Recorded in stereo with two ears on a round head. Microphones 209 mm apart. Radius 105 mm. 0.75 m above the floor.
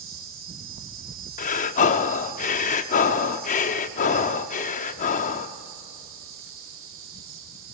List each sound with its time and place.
0.0 s an insect: 55° right (ahead or behind), 3.5 m
1.4 s breathing: 30° left (ahead or behind), 0.7 m